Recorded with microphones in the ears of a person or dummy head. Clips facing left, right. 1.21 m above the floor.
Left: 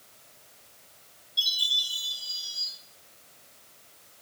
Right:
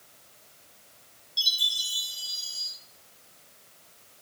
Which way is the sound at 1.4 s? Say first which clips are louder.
Left 1 dB; 70° right (ahead or behind).